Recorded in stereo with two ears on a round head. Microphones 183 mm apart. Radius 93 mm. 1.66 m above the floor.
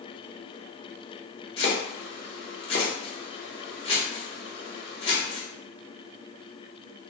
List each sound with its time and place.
1.6 s chopping: 30° left (ahead or behind), 0.9 m